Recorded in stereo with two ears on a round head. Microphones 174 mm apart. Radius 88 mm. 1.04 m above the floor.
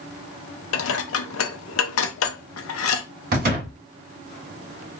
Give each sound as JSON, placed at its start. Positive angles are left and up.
{"t": 0.7, "sound": "dishes clattering", "side_deg": 70, "distance_m": 0.6}
{"t": 3.3, "sound": "a door slam", "side_deg": -50, "distance_m": 1.1}